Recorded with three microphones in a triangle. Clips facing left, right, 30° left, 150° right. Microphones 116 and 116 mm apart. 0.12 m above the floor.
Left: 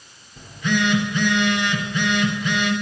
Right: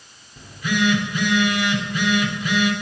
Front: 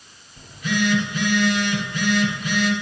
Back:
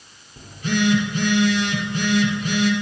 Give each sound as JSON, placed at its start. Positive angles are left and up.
{"t": 0.4, "sound": "a phone buzzing", "azimuth_deg": -170, "distance_m": 2.5}